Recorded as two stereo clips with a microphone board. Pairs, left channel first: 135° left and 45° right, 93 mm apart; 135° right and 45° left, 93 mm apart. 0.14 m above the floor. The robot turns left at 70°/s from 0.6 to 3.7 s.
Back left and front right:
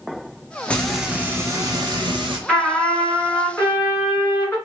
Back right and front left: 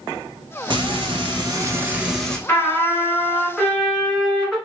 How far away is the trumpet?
About 1.8 m.